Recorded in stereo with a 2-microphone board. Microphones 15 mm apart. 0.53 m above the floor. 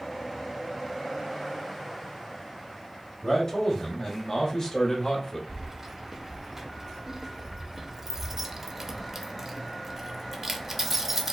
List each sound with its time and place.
3.2 s a man speaking: 40° left (ahead or behind), 2.5 m; by 5.4 s 30° left (ahead or behind), 1.4 m
5.5 s keys jangling: 25° right (ahead or behind), 0.7 m